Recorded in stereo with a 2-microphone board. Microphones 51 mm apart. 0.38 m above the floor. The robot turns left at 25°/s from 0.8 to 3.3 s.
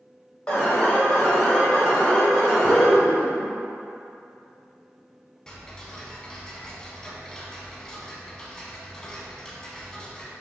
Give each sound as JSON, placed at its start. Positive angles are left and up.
{"t": 0.5, "sound": "an alarm", "side_deg": 15, "distance_m": 1.2}
{"t": 2.6, "sound": "laughter", "side_deg": 40, "distance_m": 1.0}
{"t": 5.5, "sound": "ticking", "side_deg": 15, "distance_m": 0.6}